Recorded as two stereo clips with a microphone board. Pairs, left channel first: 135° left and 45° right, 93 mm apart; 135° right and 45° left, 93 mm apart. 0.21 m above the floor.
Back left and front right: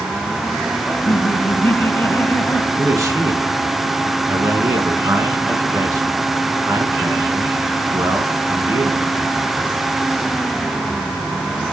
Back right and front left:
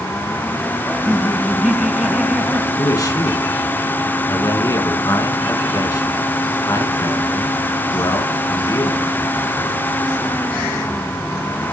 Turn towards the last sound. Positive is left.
turn(degrees=-95)